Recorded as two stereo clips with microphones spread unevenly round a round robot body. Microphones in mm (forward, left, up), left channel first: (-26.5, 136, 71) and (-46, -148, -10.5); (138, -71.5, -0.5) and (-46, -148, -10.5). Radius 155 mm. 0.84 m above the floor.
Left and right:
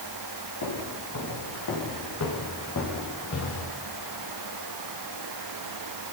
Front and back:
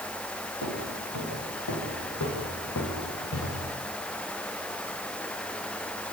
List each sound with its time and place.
0.6 s footsteps: 45° left, 8 m; by 3.7 s 35° left, 5 m